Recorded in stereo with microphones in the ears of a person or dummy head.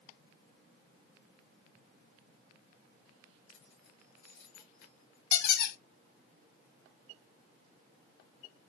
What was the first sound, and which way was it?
Keys jangling, 65° left (ahead or behind).